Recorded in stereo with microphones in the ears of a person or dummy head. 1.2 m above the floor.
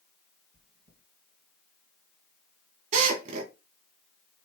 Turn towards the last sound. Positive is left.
turn(degrees=-50)  # may be behind; listen again after turning